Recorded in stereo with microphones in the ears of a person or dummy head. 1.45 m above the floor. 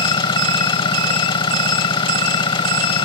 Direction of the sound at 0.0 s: 20° left (ahead or behind).